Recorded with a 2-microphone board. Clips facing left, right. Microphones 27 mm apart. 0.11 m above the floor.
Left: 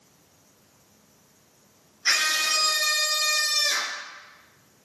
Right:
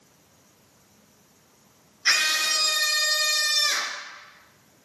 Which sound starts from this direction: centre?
A scream, at 2.0 s.